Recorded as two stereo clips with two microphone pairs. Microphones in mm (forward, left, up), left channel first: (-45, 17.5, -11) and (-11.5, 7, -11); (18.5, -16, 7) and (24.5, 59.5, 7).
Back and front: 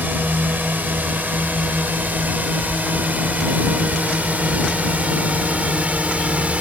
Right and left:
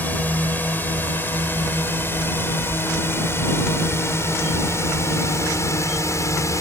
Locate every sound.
0.0 s a drone: 30° right; by 6.6 s 55° right